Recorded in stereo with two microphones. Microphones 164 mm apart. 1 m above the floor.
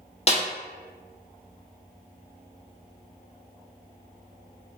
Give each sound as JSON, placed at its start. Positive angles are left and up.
{"t": 0.3, "sound": "a snare drum", "side_deg": 40, "distance_m": 0.6}